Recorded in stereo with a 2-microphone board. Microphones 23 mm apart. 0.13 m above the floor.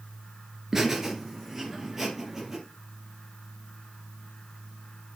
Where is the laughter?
20° right (ahead or behind), 1.8 m.